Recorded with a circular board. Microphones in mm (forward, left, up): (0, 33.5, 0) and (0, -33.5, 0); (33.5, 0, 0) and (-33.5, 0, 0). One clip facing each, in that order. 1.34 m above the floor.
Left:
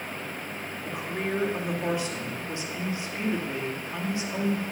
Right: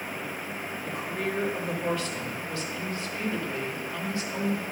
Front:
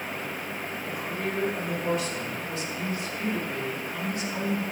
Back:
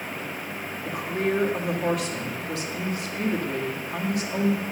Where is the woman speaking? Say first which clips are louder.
Left 1 dB, back 7 dB; 160° left, 2.5 m.